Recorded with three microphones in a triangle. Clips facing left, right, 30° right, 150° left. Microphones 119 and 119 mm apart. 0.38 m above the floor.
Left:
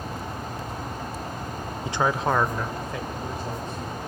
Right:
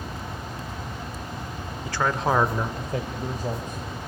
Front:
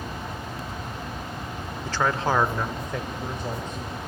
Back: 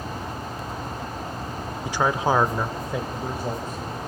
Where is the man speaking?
90° left, 0.8 m; by 4.0 s 125° right, 2 m.